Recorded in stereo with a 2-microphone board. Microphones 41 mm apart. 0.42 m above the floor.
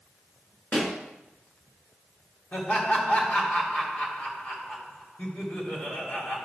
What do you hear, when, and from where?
0.7 s a pop: 35° left (ahead or behind), 1.7 m
2.5 s laughter: 50° left (ahead or behind), 2.5 m